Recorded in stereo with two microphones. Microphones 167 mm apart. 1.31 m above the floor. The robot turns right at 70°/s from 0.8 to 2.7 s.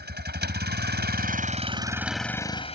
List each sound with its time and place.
0.0 s a vehicle: 95° right; by 2.8 s 35° left